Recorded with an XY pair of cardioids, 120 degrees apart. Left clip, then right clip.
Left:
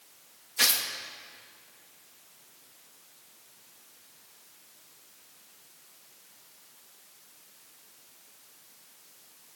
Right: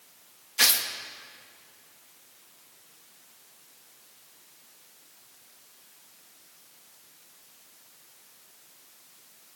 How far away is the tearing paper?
About 2 m.